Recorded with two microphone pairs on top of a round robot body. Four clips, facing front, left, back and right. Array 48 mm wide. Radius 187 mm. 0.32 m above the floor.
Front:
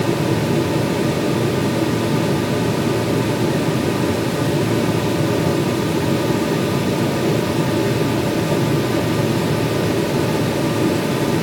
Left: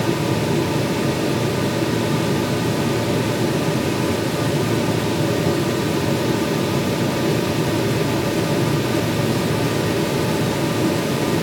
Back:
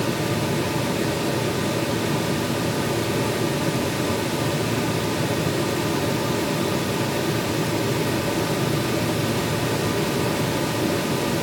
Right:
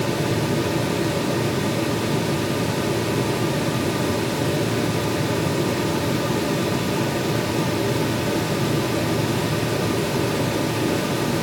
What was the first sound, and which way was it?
Only background noise.